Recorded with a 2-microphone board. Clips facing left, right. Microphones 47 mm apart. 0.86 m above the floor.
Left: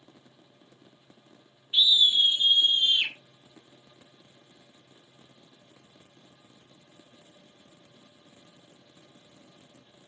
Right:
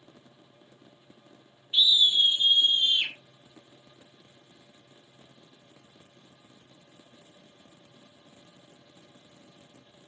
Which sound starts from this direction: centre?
A scream, at 1.7 s.